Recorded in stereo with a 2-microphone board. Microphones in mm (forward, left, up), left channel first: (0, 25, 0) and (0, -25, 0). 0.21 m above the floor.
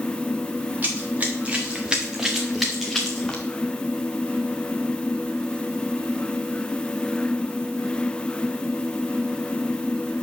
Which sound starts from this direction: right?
Running footsteps, at 0.8 s.